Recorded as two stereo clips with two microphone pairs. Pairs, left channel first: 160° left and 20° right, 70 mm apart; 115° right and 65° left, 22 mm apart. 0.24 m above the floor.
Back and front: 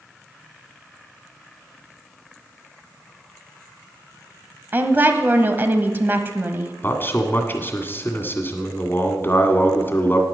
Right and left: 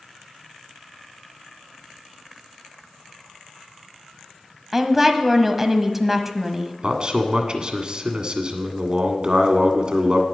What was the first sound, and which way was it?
A woman speaking, straight ahead.